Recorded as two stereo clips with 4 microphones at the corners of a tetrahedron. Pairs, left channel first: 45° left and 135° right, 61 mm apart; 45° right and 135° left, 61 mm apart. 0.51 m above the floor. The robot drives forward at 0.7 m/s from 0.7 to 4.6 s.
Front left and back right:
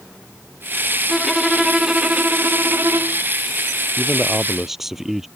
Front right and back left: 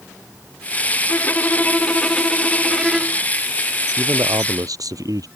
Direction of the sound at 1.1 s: 35° right.